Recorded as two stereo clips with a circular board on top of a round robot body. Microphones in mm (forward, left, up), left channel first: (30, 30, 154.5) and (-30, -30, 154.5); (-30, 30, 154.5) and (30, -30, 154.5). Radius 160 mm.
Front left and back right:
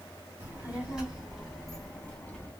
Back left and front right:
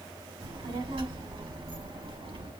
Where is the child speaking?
65° right, 2.5 m; by 2.5 s 30° right, 3 m.